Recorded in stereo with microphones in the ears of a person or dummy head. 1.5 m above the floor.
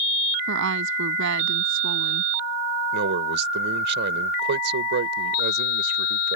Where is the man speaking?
70° right (ahead or behind).